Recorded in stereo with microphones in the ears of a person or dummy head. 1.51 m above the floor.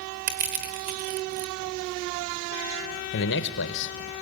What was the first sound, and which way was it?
Crushing, 40° right (ahead or behind).